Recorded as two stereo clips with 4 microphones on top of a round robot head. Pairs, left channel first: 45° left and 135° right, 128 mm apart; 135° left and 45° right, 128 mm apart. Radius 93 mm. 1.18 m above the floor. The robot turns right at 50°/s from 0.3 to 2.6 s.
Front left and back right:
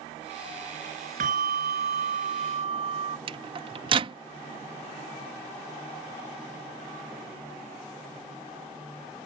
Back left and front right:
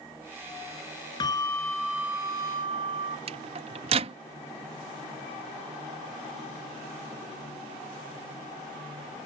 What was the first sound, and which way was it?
A bell, 165° right.